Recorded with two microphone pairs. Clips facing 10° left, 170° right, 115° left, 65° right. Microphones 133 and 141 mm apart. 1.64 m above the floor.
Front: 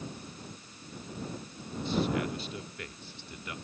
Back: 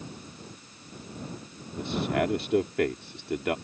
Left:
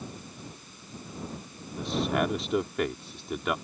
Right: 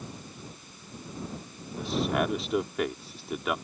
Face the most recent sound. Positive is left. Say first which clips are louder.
# back 3 dB, even
turn(degrees=-155)